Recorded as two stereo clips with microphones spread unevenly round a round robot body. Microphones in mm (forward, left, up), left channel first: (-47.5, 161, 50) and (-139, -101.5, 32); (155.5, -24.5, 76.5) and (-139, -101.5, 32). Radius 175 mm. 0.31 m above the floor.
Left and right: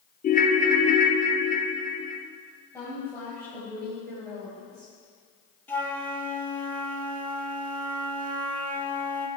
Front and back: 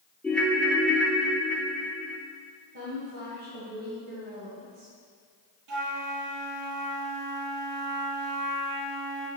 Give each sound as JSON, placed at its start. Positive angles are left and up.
{"t": 0.2, "sound": "a ringtone", "azimuth_deg": 115, "distance_m": 0.5}
{"t": 2.7, "sound": "a woman speaking", "azimuth_deg": 150, "distance_m": 2.5}
{"t": 5.7, "sound": "a flute", "azimuth_deg": 155, "distance_m": 1.4}